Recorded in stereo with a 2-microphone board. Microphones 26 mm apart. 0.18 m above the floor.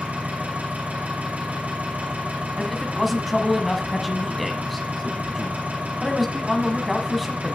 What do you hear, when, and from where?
0.0 s an engine running: 80° right, 7.5 m
2.6 s a man speaking: centre (ahead or behind), 1.2 m